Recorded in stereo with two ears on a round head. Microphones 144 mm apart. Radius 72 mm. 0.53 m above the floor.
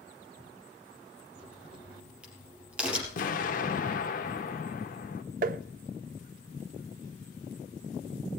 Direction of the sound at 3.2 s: 55° left (ahead or behind).